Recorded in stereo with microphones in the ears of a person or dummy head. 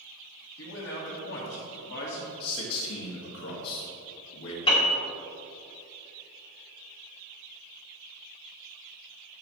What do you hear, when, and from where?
0.6 s a man speaking: 65° left (ahead or behind), 2.5 m
2.4 s a man speaking: 85° left, 2.5 m
4.7 s a piano: 30° left (ahead or behind), 1.6 m